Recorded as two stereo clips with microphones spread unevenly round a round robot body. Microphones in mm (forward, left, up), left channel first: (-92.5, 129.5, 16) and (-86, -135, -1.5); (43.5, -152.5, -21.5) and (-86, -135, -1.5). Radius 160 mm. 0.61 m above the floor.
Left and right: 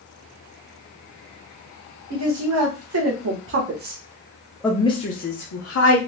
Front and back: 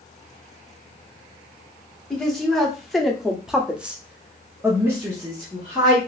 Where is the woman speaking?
90° right, 1.5 m; by 6.0 s 95° left, 1.0 m.